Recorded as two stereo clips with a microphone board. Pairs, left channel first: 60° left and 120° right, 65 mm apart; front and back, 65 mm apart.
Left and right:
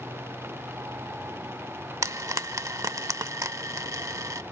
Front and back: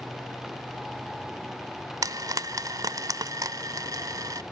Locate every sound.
2.0 s frying: 150° right, 1.2 m